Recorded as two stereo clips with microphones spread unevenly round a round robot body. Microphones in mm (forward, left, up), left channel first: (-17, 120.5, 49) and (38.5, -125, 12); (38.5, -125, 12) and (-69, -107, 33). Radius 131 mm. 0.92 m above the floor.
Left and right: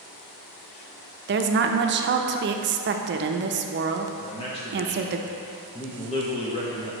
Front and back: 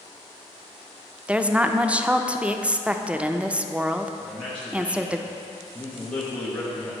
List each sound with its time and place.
1.3 s a woman speaking: 105° right, 0.5 m
4.2 s a man speaking: 40° left, 0.8 m